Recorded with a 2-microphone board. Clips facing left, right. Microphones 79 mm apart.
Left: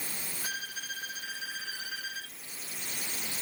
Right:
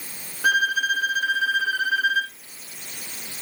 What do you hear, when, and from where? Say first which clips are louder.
0.4 s a violin: right 21 dB; 70° right (ahead or behind)